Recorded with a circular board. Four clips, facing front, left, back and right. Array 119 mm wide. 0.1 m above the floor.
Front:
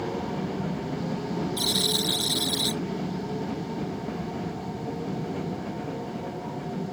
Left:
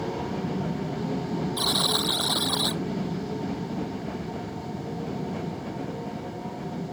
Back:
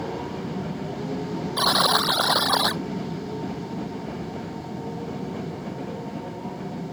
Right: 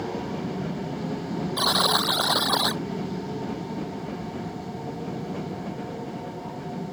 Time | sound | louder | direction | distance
1.6 | a buzzer | right 4 dB, back 8 dB | 155° right | ?